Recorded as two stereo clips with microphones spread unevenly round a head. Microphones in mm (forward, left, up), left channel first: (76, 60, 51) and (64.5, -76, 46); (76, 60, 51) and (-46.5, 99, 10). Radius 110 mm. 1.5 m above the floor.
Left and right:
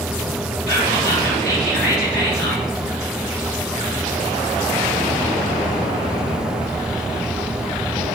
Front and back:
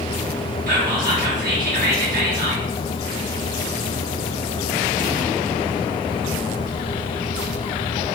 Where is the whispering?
175° left, 3 m.